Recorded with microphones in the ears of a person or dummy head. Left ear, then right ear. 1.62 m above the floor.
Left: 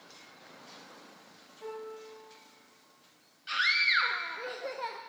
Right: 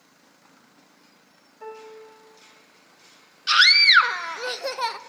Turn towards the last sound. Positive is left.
turn(degrees=-50)  # may be behind; listen again after turning